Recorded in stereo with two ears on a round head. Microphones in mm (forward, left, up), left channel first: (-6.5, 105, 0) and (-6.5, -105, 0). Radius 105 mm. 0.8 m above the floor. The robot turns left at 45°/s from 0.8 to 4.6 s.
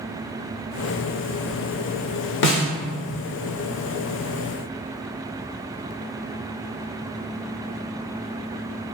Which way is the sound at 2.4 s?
50° left (ahead or behind).